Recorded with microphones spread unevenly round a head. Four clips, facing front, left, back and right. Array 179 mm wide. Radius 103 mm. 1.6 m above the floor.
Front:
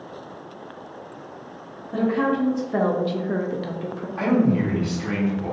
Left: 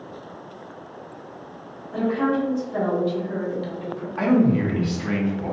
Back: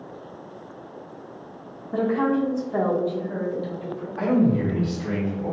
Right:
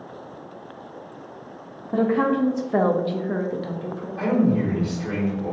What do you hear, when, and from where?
1.9 s a woman speaking: 95° right, 0.8 m; by 4.1 s 5° right, 0.8 m
4.2 s a man speaking: 60° left, 1.8 m